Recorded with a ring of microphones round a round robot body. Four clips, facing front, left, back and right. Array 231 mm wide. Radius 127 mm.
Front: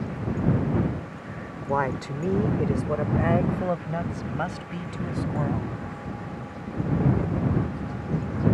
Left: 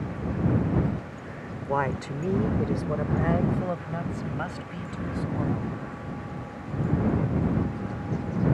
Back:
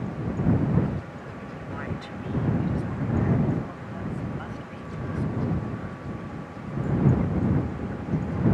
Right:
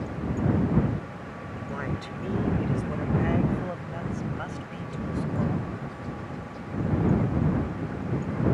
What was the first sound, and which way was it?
A woman speaking, 40° left.